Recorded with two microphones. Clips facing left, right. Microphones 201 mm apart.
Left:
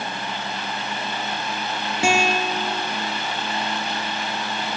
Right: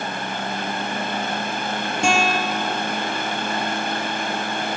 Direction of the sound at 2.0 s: 5° left (ahead or behind).